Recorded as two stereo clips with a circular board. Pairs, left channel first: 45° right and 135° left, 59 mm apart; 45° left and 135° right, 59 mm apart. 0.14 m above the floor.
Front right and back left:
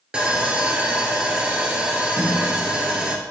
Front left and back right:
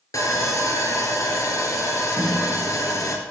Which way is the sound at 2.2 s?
80° right.